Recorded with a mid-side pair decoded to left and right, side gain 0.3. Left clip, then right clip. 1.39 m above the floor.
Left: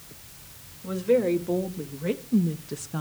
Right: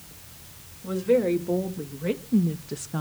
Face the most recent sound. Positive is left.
turn(degrees=-20)